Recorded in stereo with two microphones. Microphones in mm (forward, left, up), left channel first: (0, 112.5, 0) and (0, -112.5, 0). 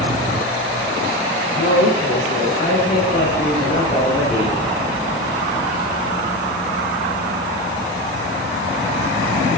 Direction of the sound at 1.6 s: 50° left (ahead or behind).